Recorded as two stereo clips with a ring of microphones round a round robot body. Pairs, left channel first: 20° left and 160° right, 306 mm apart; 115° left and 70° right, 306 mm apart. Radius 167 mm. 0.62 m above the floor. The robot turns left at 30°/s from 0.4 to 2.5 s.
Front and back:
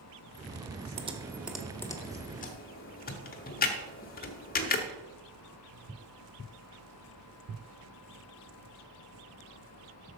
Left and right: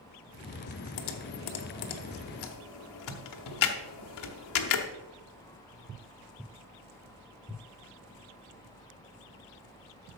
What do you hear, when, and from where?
1.0 s typing on a keyboard: 130° left, 1.1 m; by 4.9 s 85° left, 1.1 m